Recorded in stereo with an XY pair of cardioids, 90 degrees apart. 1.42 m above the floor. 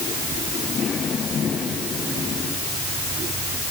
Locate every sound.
Only background noise.